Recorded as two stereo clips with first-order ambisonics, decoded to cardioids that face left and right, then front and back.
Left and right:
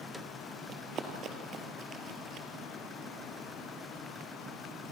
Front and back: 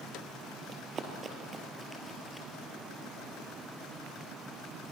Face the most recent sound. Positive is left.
turn(degrees=-75)